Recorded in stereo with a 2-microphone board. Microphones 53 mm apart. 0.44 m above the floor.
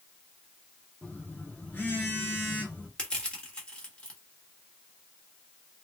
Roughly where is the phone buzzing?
Left.